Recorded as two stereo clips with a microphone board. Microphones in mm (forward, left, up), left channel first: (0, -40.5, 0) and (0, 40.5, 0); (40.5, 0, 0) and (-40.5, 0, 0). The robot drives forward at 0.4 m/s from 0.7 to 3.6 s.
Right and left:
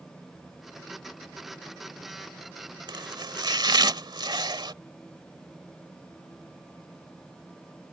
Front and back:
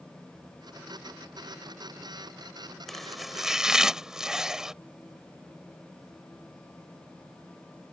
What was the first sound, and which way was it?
Chopping, 90° left.